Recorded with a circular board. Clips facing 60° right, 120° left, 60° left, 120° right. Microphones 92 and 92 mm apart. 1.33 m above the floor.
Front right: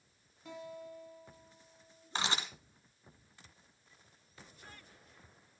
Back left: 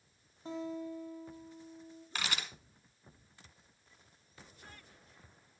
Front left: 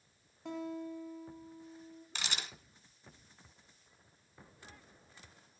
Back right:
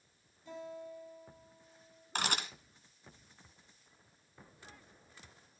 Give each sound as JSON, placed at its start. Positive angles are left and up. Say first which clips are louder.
{"t": 0.5, "sound": "a guitar", "louder": "back left 7 dB, front left 5 dB", "azimuth_deg": 60, "distance_m": 4.0}
{"t": 2.1, "sound": "a camera shutter", "louder": "front right 3 dB, back right 7 dB", "azimuth_deg": -115, "distance_m": 1.8}